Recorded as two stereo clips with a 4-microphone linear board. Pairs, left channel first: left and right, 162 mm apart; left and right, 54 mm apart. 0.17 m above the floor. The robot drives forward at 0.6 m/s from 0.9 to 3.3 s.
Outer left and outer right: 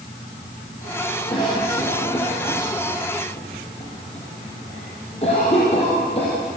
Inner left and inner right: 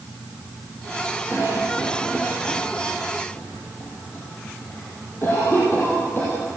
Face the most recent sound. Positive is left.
turn(degrees=35)  # may be behind; listen again after turning